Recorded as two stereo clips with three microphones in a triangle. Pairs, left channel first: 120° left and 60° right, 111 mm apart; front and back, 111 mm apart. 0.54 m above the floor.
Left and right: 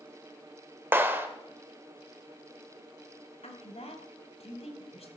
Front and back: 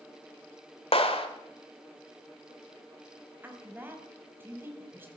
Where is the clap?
5° left, 1.5 m.